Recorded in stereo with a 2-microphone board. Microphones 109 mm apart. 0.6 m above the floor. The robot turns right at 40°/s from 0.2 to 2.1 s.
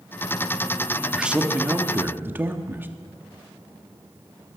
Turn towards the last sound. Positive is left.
turn(degrees=-20)  # may be behind; listen again after turning